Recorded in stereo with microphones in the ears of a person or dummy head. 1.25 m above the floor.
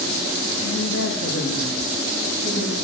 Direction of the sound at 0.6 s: 75° left (ahead or behind).